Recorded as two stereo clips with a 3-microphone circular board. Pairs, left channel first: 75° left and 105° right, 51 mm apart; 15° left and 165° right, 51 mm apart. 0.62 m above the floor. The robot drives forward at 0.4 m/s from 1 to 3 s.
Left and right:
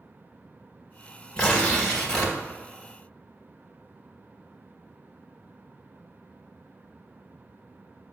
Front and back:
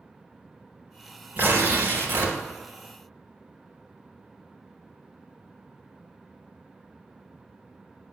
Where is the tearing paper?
145° left, 1.5 m; by 2.4 s 150° left, 1.9 m.